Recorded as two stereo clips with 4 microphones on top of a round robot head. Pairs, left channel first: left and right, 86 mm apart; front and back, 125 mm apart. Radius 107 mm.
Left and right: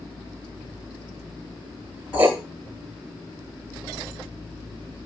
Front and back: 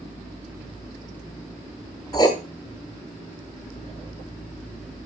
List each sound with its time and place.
2.1 s writing: 25° right, 1.0 m